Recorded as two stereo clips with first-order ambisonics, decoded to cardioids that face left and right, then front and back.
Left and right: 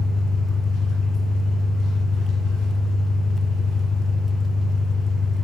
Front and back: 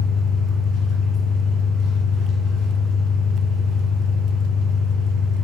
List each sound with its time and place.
0.0 s an engine running: 45° left, 2.5 m